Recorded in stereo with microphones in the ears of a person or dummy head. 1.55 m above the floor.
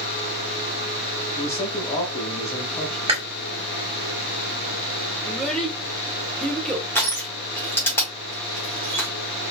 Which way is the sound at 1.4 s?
25° left (ahead or behind).